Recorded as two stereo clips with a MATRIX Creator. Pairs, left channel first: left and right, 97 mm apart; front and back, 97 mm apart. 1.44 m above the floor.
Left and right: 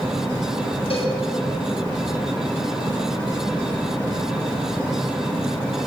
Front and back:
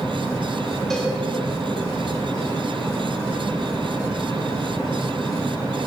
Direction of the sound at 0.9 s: 85° left.